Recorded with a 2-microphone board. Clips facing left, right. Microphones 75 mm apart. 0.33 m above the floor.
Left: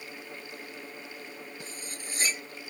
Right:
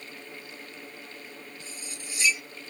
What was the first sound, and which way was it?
Cutlery clinking, 40° left (ahead or behind).